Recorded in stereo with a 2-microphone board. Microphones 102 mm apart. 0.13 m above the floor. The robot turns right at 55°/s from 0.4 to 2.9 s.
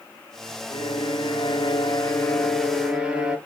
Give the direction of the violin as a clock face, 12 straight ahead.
10 o'clock.